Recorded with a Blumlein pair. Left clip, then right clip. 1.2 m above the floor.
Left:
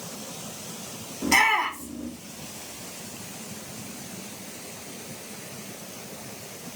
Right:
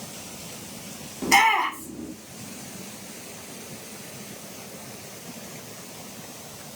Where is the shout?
5° right, 1.7 m.